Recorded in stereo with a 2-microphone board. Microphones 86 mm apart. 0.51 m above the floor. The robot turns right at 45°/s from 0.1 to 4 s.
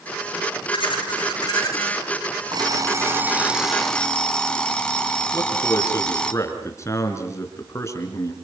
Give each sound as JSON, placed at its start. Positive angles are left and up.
{"t": 0.7, "sound": "laughter", "azimuth_deg": 95, "distance_m": 8.0}
{"t": 2.5, "sound": "an alarm clock", "azimuth_deg": -55, "distance_m": 2.0}
{"t": 5.3, "sound": "a man speaking", "side_deg": 35, "distance_m": 5.0}